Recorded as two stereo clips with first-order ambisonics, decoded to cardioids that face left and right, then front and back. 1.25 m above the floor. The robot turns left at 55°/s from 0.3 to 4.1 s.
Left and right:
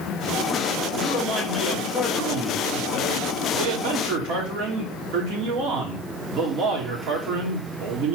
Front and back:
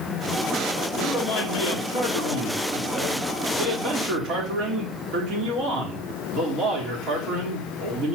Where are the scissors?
No scissors in this recording.